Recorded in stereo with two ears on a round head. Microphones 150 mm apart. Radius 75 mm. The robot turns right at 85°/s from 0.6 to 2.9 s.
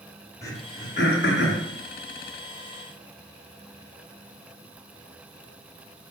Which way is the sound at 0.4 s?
20° left (ahead or behind).